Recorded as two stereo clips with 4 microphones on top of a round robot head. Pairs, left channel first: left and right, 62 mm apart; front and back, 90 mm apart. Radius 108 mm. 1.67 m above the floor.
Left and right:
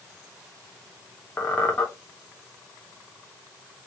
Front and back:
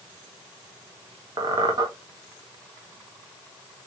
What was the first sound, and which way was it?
A squeak, 145° left.